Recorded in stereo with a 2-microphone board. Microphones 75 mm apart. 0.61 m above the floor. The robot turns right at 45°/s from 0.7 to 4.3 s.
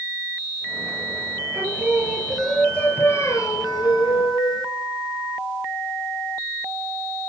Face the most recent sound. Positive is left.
turn(degrees=90)